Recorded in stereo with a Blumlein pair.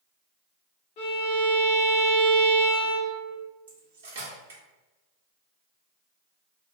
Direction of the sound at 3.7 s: 65° right.